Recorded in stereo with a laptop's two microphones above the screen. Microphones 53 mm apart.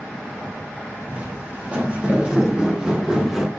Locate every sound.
1.1 s footsteps: 25° right (ahead or behind), 3 m; by 3.5 s 5° right (ahead or behind), 1.6 m